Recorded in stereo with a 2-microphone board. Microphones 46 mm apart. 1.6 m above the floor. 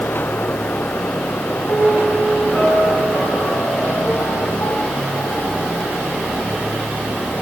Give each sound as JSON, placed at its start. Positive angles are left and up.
{"t": 1.7, "sound": "a piano", "side_deg": 80, "distance_m": 6.0}